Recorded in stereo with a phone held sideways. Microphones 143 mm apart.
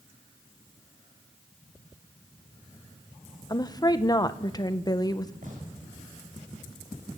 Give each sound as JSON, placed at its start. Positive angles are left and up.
{"t": 3.5, "sound": "a woman speaking", "side_deg": 30, "distance_m": 1.4}
{"t": 5.4, "sound": "a gunshot", "side_deg": -65, "distance_m": 7.0}